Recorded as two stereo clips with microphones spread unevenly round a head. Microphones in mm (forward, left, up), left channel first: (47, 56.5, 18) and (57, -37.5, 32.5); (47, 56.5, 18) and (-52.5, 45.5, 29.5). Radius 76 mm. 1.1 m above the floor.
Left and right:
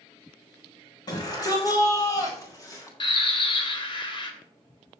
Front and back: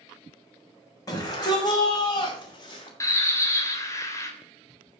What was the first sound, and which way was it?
A shout, 60° left.